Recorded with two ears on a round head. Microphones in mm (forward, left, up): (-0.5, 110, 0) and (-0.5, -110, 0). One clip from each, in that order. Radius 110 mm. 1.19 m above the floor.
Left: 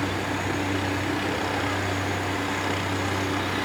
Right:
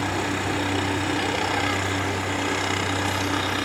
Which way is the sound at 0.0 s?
30° right (ahead or behind).